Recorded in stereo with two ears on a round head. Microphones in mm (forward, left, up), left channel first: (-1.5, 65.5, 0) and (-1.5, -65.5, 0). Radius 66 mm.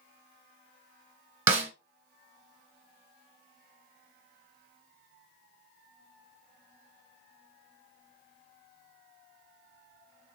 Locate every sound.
1.5 s a snare drum: 20° right (ahead or behind), 0.8 m